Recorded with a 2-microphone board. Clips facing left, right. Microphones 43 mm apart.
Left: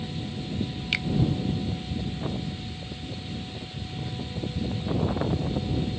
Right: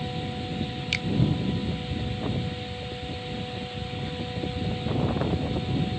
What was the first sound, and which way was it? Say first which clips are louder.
A finger snap: left 2 dB; 10° left (ahead or behind).